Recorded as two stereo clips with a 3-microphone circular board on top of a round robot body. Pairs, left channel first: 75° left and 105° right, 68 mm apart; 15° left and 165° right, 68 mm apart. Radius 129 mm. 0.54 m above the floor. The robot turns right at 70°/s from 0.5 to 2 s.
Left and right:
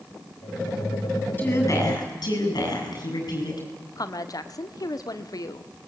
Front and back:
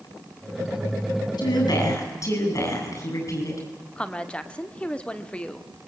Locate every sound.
1.4 s a woman speaking: 10° left, 8.5 m; by 3.6 s 55° left, 8.5 m
4.0 s a woman speaking: 85° left, 1.7 m